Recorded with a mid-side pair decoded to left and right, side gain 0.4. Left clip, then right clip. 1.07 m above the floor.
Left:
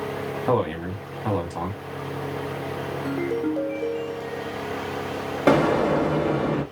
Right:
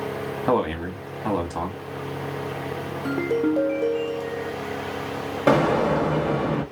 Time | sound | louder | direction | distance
0.5 | a man speaking | right 1 dB | 20° right | 1.5 m
3.0 | a ringtone | right 4 dB | 35° right | 0.7 m
5.5 | an explosion | even | 15° left | 1.6 m